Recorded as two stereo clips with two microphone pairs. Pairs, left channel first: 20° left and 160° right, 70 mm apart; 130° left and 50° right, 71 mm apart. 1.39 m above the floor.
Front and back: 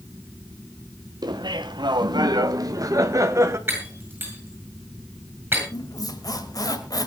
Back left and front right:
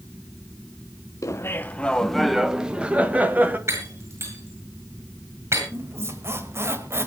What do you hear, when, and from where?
1.2 s laughter: 175° left, 0.9 m; by 3.6 s 115° right, 2 m
3.7 s breaking glass: 100° right, 8.5 m
5.7 s a squeak: straight ahead, 2 m